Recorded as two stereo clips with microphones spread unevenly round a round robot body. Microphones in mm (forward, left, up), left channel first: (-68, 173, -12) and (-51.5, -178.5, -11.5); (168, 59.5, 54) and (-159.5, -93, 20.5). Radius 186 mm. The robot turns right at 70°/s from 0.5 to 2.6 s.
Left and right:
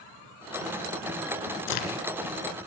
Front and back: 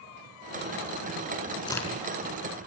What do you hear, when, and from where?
1.7 s a crack: 100° left, 4 m; by 2.0 s 125° left, 4 m